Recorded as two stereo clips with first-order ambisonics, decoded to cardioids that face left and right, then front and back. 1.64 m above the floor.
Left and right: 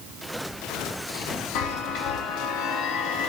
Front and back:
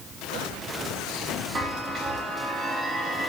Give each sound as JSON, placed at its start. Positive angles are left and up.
{"t": 1.6, "sound": "a chime", "azimuth_deg": 115, "distance_m": 2.5}